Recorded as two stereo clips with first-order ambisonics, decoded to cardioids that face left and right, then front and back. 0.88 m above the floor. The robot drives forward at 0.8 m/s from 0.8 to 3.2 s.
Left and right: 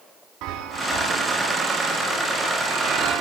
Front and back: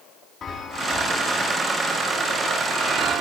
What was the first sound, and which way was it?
A chime, 60° right.